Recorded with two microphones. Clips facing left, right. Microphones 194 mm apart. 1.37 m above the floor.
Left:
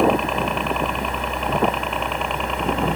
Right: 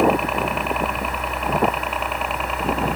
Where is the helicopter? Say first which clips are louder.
Even; 5° right (ahead or behind).